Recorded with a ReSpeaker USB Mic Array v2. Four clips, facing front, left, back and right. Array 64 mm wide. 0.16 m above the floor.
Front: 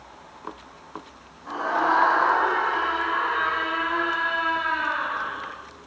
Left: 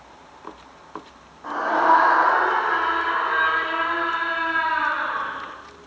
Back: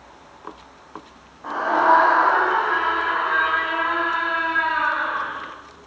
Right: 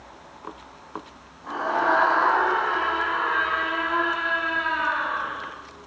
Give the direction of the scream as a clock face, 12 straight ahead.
7 o'clock.